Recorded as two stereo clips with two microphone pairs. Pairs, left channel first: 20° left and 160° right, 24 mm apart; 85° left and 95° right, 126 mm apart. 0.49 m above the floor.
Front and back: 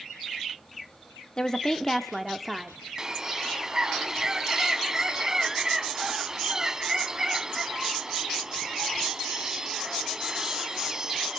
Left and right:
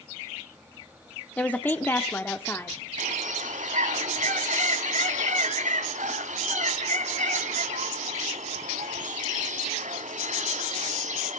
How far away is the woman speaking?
About 0.8 m.